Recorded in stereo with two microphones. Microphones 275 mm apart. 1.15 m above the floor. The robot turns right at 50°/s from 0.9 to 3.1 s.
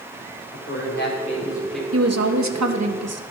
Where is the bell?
No bell in this recording.